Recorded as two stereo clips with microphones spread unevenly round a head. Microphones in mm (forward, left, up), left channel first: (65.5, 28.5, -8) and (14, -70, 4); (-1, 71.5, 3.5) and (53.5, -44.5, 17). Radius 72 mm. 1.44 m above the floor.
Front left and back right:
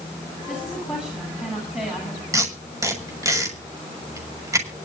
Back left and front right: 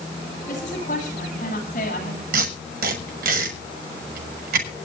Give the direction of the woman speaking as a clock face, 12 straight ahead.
7 o'clock.